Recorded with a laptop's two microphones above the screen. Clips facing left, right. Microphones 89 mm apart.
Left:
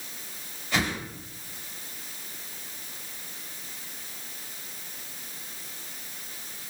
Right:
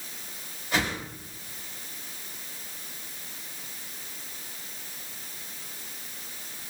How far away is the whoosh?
About 2 m.